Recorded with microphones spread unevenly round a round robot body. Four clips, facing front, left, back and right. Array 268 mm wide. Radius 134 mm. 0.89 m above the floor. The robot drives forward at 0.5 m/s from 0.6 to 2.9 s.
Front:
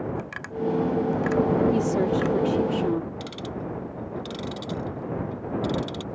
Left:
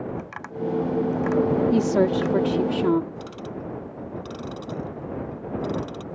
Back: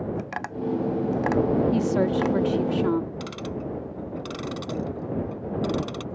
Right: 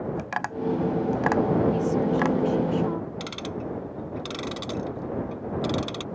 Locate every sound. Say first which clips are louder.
0.2 s tapping: right 2 dB, front 1 dB; 140° right; by 2.4 s 145° right
1.7 s a woman speaking: left 4 dB, even; 100° left; by 3.1 s 115° left
3.2 s ticking: right 1 dB, back 1 dB; 115° right